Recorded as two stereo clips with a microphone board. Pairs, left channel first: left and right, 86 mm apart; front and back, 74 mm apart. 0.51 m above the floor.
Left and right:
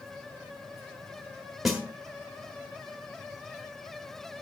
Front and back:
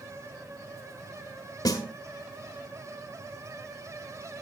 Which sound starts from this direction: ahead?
A snare drum, at 1.6 s.